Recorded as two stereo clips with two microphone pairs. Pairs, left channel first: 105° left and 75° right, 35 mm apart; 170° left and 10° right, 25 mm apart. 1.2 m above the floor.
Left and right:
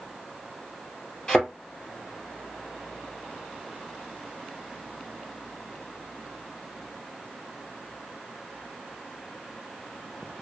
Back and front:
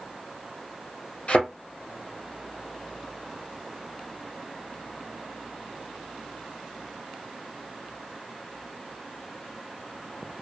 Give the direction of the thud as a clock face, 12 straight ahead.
6 o'clock.